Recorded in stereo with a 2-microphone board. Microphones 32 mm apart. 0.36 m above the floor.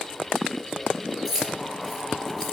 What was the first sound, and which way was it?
Keys jangling, 5° left (ahead or behind).